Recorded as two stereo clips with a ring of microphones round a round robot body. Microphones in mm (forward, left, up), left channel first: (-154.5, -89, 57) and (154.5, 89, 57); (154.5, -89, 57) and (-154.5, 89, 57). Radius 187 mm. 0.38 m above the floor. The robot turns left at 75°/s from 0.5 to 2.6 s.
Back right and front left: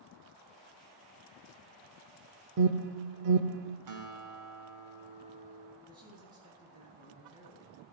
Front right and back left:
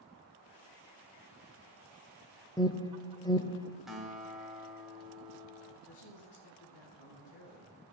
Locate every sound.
2.6 s an alarm: 50° left, 0.9 m; by 3.8 s 45° left, 0.9 m
3.9 s a guitar: 60° left, 2 m
5.9 s a man speaking: 40° right, 5 m